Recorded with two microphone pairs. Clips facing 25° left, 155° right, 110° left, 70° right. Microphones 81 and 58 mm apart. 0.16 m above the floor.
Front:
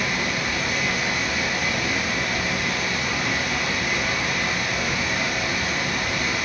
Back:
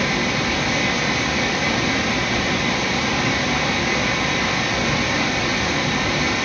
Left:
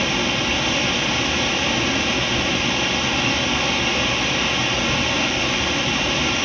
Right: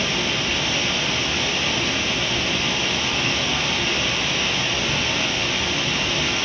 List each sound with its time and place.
0.0 s running water: 165° right, 2.5 m